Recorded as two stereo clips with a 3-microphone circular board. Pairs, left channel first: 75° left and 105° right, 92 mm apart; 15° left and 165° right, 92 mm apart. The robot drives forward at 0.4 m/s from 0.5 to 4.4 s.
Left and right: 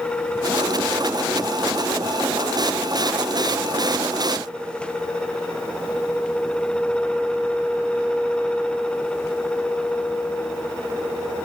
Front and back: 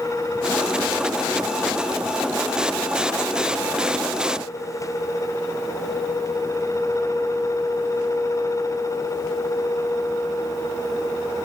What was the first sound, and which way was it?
Only background noise.